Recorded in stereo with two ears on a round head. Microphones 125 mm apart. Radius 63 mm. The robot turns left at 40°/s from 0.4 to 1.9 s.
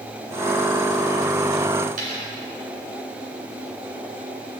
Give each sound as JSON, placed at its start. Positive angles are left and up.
{"t": 2.0, "sound": "a dropped coin", "side_deg": -65, "distance_m": 3.0}